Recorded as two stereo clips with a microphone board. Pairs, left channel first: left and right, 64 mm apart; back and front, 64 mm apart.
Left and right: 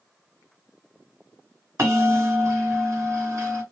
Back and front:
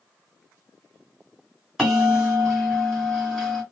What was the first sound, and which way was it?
A bell, 85° right.